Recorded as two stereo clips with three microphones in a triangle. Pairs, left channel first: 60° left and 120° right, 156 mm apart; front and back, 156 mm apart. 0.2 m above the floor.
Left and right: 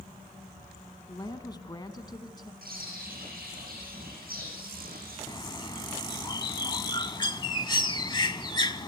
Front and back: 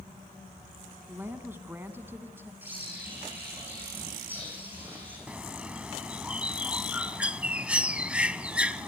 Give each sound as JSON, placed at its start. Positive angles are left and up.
{"t": 1.1, "sound": "a woman speaking", "azimuth_deg": 110, "distance_m": 1.8}
{"t": 2.6, "sound": "a bird", "azimuth_deg": -100, "distance_m": 8.0}
{"t": 5.3, "sound": "a bird", "azimuth_deg": 100, "distance_m": 0.8}